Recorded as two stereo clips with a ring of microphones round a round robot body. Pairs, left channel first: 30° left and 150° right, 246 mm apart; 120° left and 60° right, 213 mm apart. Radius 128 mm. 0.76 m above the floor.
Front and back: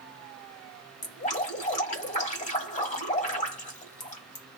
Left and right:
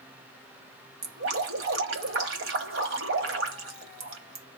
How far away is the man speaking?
No man speaking in this recording.